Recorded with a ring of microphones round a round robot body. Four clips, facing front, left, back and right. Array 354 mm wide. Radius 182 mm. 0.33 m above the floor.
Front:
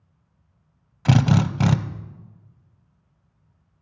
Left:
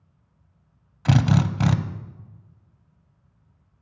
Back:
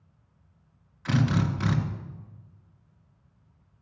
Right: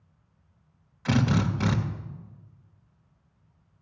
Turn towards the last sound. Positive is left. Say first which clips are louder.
# left 3 dB, front 6 dB
turn(degrees=30)